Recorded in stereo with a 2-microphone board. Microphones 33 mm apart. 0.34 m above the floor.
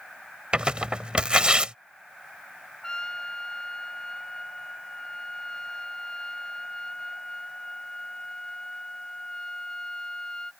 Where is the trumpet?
20° left (ahead or behind).